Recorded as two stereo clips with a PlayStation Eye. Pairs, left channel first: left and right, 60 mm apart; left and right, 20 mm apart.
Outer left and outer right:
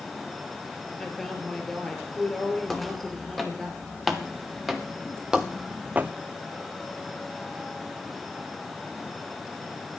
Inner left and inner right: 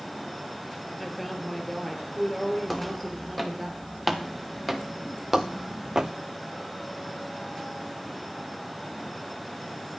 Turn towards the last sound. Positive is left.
turn(degrees=-30)  # may be behind; listen again after turning